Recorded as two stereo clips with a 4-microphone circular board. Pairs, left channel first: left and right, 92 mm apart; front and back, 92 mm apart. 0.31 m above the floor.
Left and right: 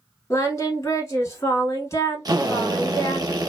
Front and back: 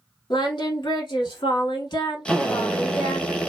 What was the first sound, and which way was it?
Singing, 35° left.